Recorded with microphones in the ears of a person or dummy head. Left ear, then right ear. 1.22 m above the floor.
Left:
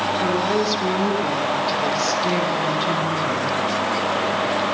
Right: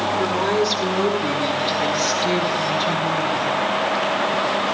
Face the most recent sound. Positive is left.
turn(degrees=-35)  # may be behind; listen again after turning